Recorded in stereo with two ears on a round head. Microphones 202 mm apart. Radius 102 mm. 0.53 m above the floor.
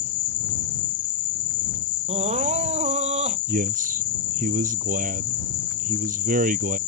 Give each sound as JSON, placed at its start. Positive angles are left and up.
{"t": 0.0, "sound": "an insect", "side_deg": 55}
{"t": 2.1, "sound": "crying", "side_deg": -30}
{"t": 3.5, "sound": "a man speaking", "side_deg": -40}